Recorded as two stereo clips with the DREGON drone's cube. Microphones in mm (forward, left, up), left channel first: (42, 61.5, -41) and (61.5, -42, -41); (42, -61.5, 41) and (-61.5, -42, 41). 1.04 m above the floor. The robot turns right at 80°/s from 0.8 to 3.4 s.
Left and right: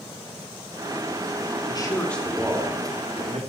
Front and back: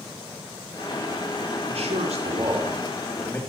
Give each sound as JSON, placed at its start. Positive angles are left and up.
{"t": 1.7, "sound": "a man speaking", "azimuth_deg": 145, "distance_m": 2.5}